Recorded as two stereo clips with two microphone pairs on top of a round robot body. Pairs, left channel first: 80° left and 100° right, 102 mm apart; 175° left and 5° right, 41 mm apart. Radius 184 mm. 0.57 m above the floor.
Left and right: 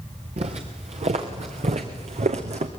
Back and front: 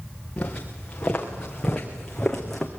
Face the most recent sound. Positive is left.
turn(degrees=-100)